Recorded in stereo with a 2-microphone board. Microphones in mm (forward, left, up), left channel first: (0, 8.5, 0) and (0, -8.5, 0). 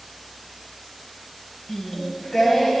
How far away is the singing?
About 1.4 m.